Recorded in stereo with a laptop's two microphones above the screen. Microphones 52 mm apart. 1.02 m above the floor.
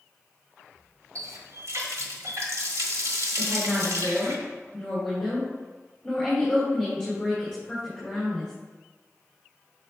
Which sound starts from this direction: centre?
A woman speaking, at 3.4 s.